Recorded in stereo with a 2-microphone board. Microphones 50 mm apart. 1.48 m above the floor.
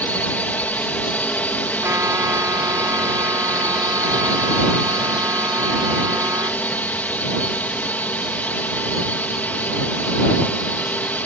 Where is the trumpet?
70° right (ahead or behind).